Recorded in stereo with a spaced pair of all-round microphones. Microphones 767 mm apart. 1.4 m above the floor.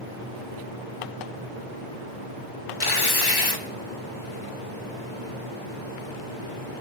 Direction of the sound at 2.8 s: 30° left (ahead or behind).